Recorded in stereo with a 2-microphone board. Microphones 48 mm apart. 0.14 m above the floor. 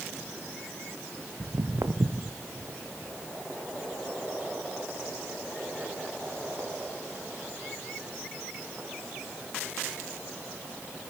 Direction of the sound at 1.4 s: 80° right.